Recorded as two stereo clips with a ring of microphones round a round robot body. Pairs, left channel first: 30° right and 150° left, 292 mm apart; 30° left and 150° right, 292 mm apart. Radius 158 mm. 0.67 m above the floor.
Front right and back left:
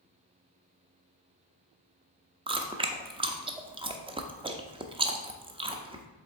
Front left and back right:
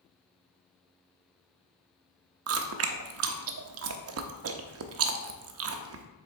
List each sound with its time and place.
2.5 s chewing: 145° right, 0.6 m